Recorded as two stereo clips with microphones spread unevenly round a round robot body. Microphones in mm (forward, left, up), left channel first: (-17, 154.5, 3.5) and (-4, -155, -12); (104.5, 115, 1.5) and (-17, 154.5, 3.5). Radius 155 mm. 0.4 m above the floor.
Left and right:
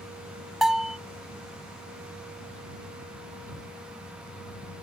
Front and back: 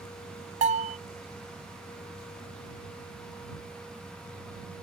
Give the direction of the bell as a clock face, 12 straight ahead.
6 o'clock.